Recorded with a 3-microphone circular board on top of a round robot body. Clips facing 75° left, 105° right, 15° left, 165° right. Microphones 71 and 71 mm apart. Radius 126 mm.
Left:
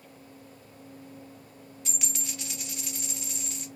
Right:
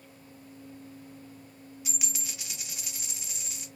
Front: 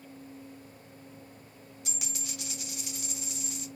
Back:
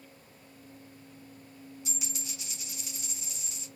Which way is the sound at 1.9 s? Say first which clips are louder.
Left 2 dB, front 2 dB; 20° right.